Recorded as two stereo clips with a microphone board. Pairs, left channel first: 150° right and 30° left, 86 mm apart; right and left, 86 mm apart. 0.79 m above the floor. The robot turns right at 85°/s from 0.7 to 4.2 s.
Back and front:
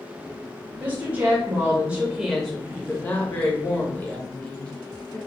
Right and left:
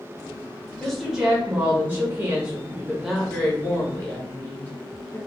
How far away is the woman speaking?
About 0.7 m.